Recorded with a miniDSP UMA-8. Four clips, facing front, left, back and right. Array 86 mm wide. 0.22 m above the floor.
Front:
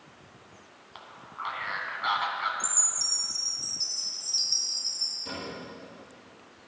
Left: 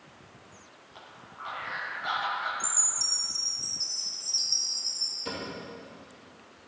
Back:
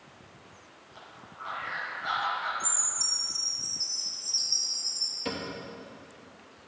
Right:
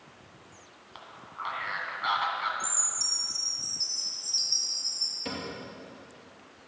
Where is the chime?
15° right, 1.3 m.